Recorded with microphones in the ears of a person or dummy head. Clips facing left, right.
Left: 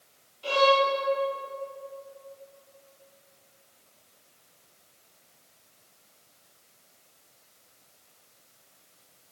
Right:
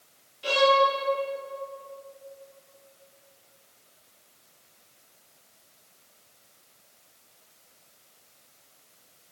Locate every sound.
0.4 s a violin: 20° right (ahead or behind), 7 m